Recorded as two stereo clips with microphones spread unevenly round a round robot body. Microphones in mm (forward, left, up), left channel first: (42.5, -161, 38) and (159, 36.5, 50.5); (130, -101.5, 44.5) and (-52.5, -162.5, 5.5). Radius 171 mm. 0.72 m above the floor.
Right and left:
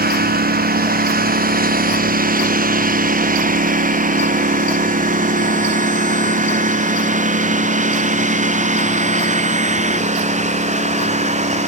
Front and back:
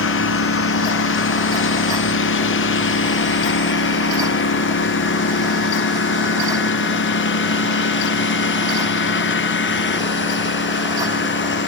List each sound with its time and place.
0.0 s a lawn mower: 10° left; by 11.7 s straight ahead